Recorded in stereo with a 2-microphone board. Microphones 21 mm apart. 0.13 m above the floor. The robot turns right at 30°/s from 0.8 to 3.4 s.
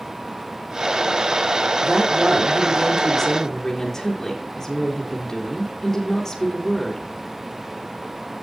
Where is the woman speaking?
25° right, 3.5 m; by 7.0 s 25° left, 3.5 m.